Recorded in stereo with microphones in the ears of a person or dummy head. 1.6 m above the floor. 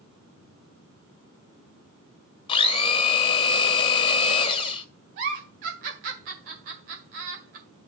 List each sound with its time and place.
2.5 s a blender: 30° left (ahead or behind), 1.4 m
5.2 s a giggle: 45° right (ahead or behind), 1.7 m